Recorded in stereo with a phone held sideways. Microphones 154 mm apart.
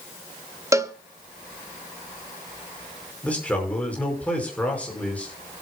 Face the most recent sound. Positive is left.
turn(degrees=10)  # may be behind; listen again after turning